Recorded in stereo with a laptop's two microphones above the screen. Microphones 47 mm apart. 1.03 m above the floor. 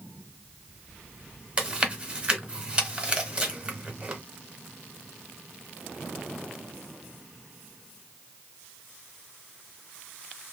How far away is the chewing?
About 0.9 m.